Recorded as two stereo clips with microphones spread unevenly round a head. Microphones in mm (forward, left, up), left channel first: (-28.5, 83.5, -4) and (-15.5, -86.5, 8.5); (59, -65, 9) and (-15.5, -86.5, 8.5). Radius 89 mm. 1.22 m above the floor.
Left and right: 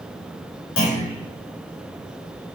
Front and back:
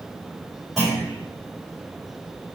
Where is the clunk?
105° left, 4 m.